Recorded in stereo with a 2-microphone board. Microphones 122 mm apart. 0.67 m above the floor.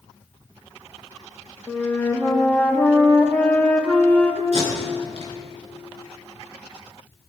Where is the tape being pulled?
70° right (ahead or behind), 4 m.